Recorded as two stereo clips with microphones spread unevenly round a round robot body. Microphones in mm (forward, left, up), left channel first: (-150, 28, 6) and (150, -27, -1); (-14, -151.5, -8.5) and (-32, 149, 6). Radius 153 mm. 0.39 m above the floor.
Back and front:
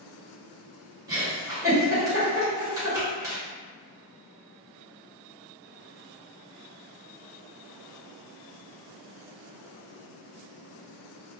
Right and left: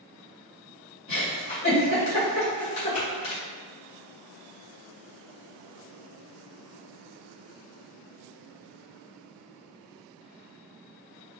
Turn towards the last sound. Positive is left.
turn(degrees=-85)